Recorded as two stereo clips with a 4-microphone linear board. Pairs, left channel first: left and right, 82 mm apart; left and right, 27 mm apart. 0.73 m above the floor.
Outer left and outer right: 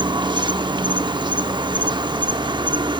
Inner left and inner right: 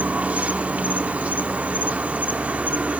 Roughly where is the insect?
Right.